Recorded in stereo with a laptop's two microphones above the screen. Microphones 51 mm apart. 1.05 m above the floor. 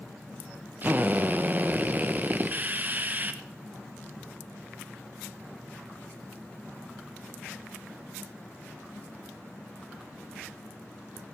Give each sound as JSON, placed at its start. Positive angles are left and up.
{"t": 0.8, "sound": "a drill", "side_deg": -35, "distance_m": 0.7}